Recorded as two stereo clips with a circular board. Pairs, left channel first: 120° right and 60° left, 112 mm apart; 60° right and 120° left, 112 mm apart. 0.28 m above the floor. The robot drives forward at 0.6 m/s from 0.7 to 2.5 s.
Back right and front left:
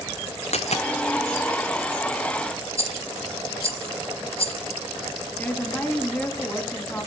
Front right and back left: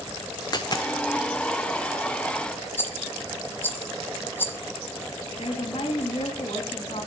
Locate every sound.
0.5 s a dropped coin: 110° right, 1.0 m; by 0.9 s 120° right, 1.1 m
2.8 s a rattle: 130° right, 1.2 m
5.4 s a woman speaking: 45° right, 2.5 m